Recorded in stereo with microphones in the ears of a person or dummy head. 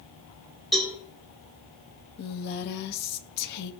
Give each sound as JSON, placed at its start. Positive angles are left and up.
{"t": 0.7, "sound": "a cowbell", "side_deg": 0, "distance_m": 4.0}
{"t": 2.2, "sound": "a woman speaking", "side_deg": 55, "distance_m": 0.8}